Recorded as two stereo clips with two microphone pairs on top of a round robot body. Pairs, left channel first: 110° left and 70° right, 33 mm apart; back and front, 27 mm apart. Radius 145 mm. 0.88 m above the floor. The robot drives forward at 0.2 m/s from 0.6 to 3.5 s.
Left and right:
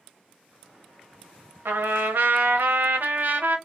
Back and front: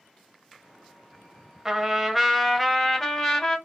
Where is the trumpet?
70° right, 0.5 m; by 3.6 s 115° right, 0.6 m.